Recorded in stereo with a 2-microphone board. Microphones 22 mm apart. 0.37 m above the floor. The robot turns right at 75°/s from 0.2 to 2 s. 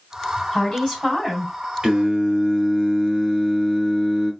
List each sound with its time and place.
0.5 s a woman speaking: 140° left, 3 m; by 1.5 s 145° right, 3 m
1.8 s singing: 30° right (ahead or behind), 1.2 m; by 4.3 s 35° right (ahead or behind), 1.2 m